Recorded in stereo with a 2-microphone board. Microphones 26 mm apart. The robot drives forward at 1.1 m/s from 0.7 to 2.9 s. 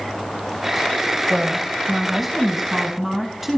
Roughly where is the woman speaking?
Centre.